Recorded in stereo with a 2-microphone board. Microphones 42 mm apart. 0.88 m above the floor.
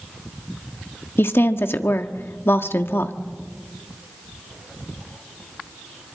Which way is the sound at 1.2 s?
70° left (ahead or behind).